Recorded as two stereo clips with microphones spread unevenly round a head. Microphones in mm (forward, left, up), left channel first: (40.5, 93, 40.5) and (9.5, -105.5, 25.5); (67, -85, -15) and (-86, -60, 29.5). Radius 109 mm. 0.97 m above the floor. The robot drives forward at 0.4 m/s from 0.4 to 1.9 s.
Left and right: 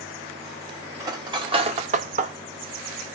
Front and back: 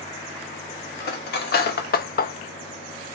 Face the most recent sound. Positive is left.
turn(degrees=-40)